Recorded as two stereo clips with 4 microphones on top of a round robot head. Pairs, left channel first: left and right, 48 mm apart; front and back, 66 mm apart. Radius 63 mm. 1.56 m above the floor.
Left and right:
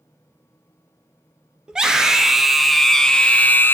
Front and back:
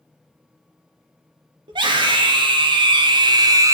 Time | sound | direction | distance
1.7 | a scream | 160° right | 2.5 m